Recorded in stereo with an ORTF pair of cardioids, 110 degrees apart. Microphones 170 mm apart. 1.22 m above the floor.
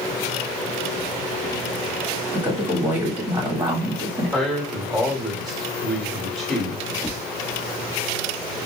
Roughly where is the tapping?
Ahead.